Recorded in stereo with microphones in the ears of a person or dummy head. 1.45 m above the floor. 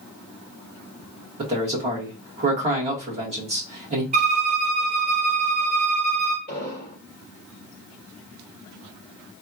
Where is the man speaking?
35° right (ahead or behind), 1.6 m.